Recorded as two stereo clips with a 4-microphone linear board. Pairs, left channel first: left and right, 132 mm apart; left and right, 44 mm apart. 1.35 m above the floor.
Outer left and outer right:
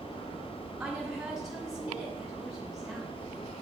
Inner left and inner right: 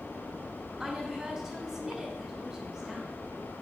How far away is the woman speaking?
About 4 m.